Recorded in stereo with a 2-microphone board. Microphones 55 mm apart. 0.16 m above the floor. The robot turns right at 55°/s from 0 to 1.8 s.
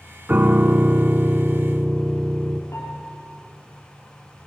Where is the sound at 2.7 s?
65° left (ahead or behind), 5 m.